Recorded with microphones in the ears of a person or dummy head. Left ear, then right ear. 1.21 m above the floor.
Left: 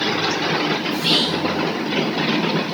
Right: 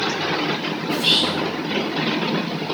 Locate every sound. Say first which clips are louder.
0.9 s whispering: right 3 dB; 45° right (ahead or behind), 0.8 m